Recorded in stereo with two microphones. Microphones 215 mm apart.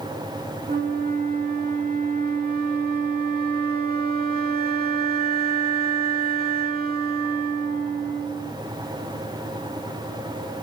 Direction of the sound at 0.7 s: 45° right (ahead or behind).